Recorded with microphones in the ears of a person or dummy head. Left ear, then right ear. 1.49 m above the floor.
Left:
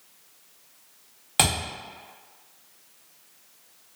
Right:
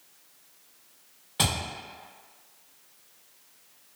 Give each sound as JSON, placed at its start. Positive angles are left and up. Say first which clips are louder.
{"t": 1.4, "sound": "a thud", "louder": "left 4 dB", "side_deg": 30, "distance_m": 0.9}